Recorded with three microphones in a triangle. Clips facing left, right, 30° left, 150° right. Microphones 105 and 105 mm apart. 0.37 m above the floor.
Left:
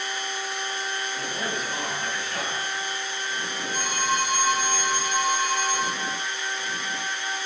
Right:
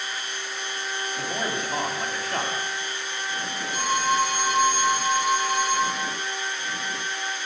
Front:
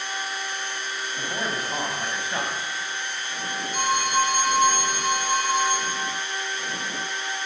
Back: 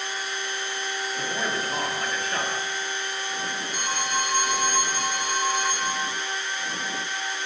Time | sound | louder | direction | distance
1.2 | a man speaking | right 2 dB, even | 45° right | 2.5 m
3.7 | a phone ringing | right 4 dB, front 7 dB | 10° right | 5.5 m